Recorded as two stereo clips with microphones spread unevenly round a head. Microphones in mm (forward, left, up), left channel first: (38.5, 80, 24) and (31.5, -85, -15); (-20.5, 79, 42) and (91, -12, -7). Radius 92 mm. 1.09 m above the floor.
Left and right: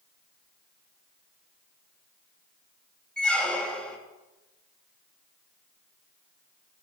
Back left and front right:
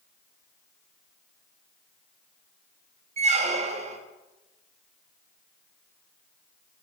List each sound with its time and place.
3.2 s a squeak: 5° left, 1.2 m